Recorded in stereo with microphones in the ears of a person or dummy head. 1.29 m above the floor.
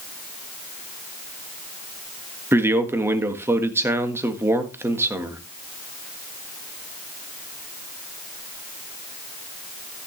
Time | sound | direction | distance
2.5 | a man speaking | 15° right (ahead or behind) | 1.4 m